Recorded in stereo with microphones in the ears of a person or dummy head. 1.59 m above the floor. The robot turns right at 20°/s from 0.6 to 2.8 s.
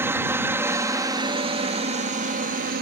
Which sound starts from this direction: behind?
A helicopter, at 0.0 s.